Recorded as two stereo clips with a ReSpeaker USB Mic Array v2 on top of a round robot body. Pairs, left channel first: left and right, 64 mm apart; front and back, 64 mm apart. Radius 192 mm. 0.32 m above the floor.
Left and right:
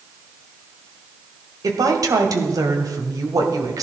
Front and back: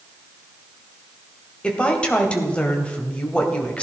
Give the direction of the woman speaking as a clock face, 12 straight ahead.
2 o'clock.